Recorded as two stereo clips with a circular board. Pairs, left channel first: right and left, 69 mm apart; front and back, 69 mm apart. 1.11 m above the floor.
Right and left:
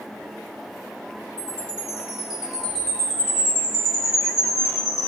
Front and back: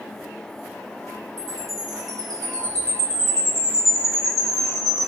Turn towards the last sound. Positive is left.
turn(degrees=165)